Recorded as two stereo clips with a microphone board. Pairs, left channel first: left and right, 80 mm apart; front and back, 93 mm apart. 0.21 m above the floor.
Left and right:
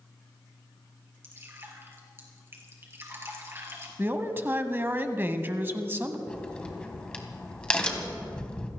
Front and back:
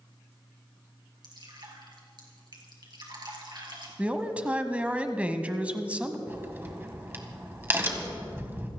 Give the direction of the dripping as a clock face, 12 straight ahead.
5 o'clock.